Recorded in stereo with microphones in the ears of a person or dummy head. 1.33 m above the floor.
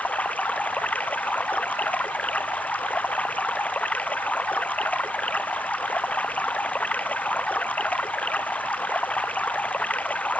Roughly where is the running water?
Centre.